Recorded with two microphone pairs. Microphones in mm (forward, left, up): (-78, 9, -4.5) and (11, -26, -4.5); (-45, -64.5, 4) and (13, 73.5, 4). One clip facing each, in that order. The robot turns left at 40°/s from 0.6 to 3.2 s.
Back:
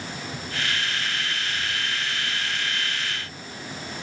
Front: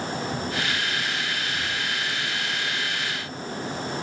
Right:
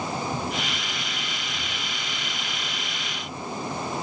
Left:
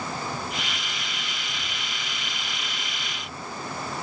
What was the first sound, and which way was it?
Only background noise.